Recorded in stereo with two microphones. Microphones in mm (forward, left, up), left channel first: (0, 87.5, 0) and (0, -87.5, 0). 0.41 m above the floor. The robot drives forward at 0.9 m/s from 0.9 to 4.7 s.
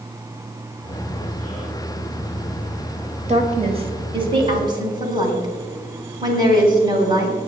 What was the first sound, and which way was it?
A woman speaking, 40° right (ahead or behind).